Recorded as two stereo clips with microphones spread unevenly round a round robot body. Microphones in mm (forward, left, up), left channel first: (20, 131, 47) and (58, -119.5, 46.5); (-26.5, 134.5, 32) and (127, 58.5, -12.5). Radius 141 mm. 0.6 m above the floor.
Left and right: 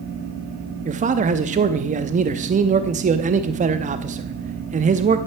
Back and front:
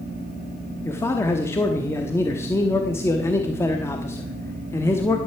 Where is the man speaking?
115° right, 0.7 m.